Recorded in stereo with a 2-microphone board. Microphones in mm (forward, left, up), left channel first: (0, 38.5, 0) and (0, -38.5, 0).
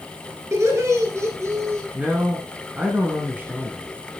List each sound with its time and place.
0.5 s laughter: 40° right (ahead or behind), 2.5 m
1.9 s a man speaking: 20° right (ahead or behind), 1.6 m